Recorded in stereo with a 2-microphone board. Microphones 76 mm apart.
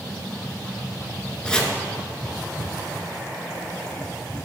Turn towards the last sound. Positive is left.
turn(degrees=10)  # may be behind; listen again after turning